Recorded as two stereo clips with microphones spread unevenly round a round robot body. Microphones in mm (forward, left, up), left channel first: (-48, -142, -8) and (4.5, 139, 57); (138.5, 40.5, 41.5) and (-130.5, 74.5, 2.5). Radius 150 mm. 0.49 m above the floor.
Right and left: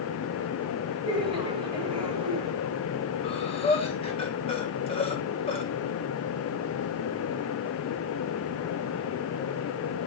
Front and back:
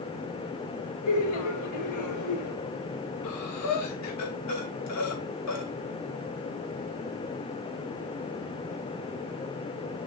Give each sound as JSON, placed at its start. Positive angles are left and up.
{"t": 1.1, "sound": "laughter", "azimuth_deg": 5, "distance_m": 3.0}
{"t": 3.2, "sound": "breathing", "azimuth_deg": -40, "distance_m": 2.0}